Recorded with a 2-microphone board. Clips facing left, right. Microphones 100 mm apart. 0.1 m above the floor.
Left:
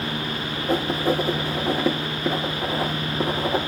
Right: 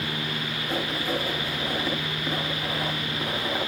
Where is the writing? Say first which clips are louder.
Left 7 dB; 80° left, 4.5 m.